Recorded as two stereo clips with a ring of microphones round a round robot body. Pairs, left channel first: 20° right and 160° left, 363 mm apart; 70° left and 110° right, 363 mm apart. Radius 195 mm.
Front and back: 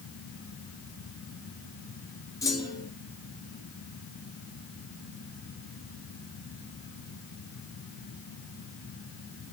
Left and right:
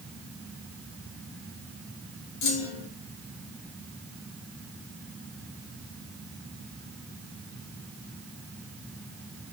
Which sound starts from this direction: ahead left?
A clunk, at 2.4 s.